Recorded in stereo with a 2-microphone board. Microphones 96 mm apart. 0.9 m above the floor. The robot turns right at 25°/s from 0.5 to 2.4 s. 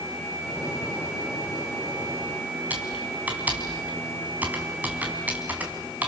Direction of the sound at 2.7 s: 15° right (ahead or behind).